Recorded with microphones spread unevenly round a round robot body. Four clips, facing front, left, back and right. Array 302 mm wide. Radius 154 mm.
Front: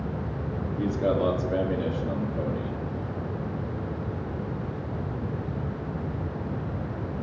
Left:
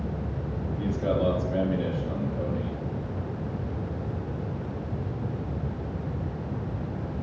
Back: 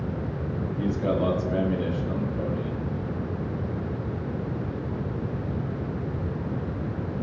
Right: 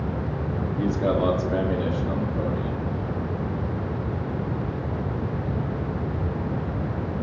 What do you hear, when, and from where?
0.8 s a man speaking: 45° right, 2.5 m